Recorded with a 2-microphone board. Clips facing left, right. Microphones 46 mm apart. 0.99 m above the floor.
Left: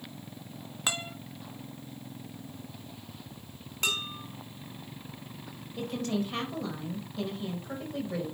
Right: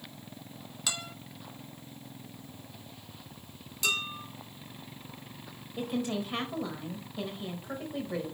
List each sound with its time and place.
0.9 s a guitar: 35° left (ahead or behind), 1.4 m
3.8 s dishes clattering: 45° left (ahead or behind), 4.5 m
5.8 s a woman speaking: 10° right (ahead or behind), 4 m